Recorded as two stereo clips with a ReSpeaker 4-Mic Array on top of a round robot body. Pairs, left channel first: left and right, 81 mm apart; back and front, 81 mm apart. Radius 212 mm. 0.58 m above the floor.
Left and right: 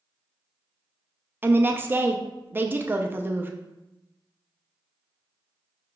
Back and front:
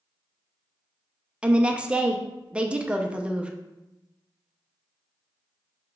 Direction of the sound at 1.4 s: 60° right.